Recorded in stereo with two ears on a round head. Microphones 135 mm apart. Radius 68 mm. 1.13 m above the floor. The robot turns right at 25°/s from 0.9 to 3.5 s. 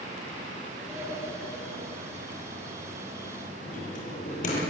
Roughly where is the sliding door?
Centre.